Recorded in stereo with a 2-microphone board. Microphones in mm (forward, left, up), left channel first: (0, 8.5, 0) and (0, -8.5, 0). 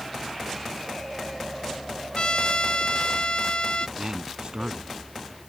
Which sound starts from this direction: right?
A man speaking, at 4.0 s.